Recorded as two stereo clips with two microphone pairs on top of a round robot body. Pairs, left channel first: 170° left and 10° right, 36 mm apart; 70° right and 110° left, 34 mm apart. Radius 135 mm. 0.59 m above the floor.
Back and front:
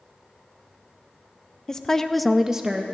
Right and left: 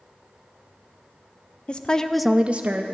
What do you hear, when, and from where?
1.7 s a woman speaking: 125° right, 1.0 m; by 2.9 s 70° left, 0.9 m